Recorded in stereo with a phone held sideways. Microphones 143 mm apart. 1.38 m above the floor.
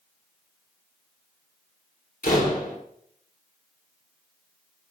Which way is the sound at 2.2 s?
80° left.